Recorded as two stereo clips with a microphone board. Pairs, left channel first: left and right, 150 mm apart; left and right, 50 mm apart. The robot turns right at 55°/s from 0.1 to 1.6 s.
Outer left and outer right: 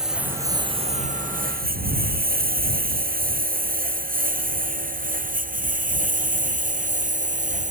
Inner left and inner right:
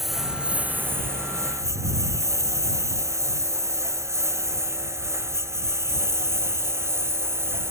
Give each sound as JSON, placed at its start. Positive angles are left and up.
{"t": 0.0, "sound": "a lawn mower", "side_deg": -5}